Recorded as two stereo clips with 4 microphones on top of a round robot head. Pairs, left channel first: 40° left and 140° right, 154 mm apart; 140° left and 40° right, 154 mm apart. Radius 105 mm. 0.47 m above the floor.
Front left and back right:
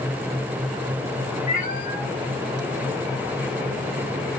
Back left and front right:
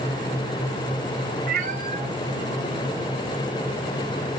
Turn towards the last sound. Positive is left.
turn(degrees=100)